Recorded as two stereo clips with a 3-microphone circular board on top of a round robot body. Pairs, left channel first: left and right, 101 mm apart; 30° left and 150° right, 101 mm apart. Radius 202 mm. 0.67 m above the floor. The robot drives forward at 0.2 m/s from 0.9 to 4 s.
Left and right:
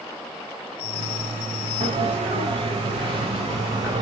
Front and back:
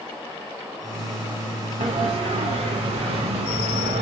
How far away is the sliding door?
About 1.1 m.